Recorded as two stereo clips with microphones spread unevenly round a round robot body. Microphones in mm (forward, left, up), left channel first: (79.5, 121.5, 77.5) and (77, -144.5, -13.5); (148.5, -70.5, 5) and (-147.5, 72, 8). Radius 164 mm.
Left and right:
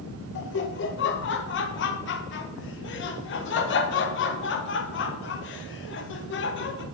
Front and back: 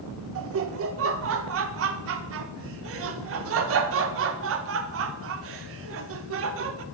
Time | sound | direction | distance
0.3 | laughter | 140° left | 0.5 m